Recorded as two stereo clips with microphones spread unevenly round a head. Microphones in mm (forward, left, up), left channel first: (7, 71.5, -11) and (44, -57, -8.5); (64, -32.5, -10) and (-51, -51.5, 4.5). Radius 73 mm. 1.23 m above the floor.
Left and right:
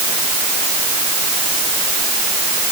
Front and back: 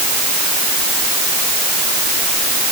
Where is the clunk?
No clunk in this recording.